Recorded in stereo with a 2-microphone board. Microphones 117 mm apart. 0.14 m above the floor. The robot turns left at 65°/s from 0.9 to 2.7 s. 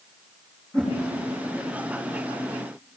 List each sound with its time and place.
0.7 s a whoosh: 10° left (ahead or behind), 4 m